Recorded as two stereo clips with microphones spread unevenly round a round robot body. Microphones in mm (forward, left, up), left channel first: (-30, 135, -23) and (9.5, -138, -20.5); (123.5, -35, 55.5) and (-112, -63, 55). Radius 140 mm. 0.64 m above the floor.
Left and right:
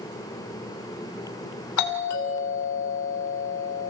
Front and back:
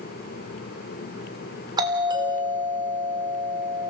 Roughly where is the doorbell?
Behind left.